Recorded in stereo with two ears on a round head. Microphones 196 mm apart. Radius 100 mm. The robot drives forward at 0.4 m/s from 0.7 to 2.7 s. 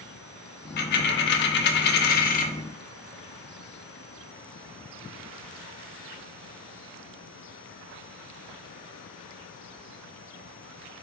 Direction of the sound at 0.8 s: 45° left (ahead or behind).